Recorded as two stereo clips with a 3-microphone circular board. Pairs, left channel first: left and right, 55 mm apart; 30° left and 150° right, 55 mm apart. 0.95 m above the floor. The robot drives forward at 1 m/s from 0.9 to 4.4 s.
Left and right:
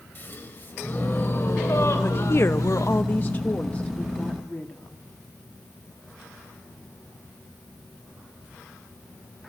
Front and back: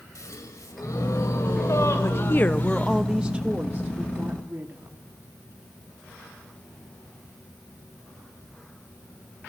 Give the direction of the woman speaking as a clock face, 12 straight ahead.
10 o'clock.